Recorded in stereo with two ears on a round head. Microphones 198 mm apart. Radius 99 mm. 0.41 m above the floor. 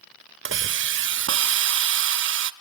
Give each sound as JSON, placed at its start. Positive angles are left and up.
{"t": 0.5, "sound": "a hiss", "side_deg": -55, "distance_m": 0.8}